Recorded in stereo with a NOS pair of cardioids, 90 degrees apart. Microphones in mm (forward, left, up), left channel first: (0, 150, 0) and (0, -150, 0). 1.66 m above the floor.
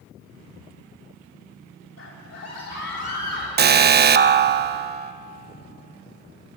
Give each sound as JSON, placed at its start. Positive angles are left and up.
{"t": 2.0, "sound": "a scream", "azimuth_deg": 40, "distance_m": 5.0}
{"t": 3.6, "sound": "an alarm", "azimuth_deg": -35, "distance_m": 0.6}